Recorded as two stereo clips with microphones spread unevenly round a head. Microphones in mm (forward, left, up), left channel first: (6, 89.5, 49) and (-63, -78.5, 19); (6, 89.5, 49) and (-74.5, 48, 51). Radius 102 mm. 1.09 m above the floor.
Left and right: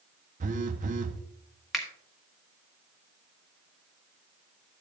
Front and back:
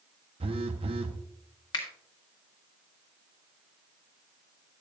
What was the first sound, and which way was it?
A phone buzzing, 165° right.